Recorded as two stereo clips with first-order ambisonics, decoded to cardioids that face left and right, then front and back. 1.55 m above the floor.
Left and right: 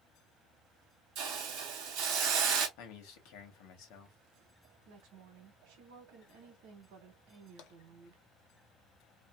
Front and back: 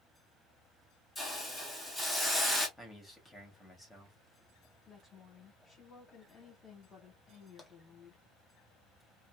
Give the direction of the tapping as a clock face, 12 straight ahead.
9 o'clock.